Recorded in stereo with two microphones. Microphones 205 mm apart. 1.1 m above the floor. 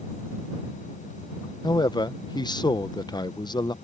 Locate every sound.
1.6 s a man speaking: 20° left (ahead or behind)